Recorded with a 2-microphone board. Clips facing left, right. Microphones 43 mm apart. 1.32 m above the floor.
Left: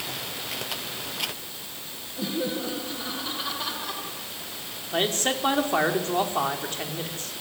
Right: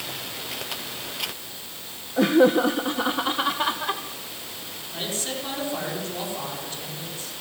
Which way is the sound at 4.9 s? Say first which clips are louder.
Left 6 dB; 55° left (ahead or behind).